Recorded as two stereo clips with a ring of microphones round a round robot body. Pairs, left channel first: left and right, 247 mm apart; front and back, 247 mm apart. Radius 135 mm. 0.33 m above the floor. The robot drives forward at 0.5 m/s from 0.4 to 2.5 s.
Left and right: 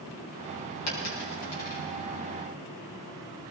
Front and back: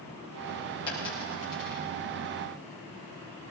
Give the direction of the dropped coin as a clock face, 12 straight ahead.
10 o'clock.